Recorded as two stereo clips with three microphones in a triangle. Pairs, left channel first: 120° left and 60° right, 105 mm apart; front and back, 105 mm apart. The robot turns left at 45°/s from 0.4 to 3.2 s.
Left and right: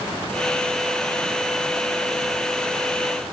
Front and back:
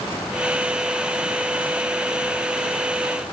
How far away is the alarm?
I don't hear an alarm.